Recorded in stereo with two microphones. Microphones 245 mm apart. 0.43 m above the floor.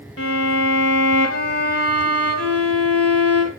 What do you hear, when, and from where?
0.2 s a violin: 65° left (ahead or behind), 2 m